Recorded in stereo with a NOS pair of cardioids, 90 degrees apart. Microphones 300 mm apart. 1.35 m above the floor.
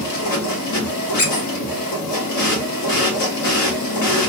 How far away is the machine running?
About 1.4 m.